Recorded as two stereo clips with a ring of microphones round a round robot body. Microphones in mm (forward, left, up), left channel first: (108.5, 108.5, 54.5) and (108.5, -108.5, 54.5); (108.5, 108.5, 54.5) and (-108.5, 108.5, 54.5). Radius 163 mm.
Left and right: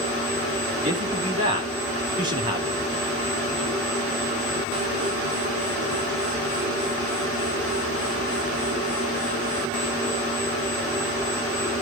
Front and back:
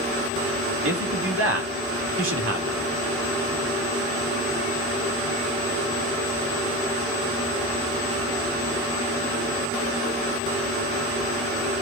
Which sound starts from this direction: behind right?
A man speaking, at 0.8 s.